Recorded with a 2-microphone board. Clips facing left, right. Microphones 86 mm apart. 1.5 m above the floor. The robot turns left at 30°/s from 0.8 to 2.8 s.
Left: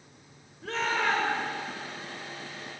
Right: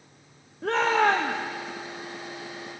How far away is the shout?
About 1.1 m.